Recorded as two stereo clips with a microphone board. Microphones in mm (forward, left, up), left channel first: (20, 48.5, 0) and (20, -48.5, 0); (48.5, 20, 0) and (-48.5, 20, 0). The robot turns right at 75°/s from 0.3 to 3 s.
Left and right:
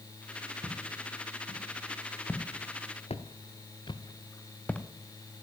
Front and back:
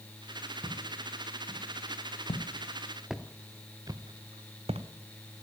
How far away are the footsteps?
About 2.5 m.